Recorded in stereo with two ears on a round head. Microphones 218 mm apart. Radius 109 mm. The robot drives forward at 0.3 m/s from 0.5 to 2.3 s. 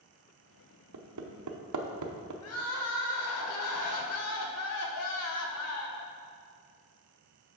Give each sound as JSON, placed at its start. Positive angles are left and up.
{"t": 0.9, "sound": "hammering", "side_deg": -70, "distance_m": 0.9}
{"t": 2.4, "sound": "crying", "side_deg": 65, "distance_m": 0.9}